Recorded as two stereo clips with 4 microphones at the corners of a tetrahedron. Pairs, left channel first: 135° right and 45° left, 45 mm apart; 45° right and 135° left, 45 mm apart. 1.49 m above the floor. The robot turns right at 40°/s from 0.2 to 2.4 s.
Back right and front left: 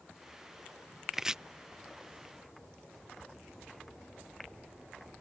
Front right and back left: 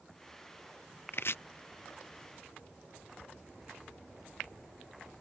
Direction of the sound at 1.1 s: 40° right.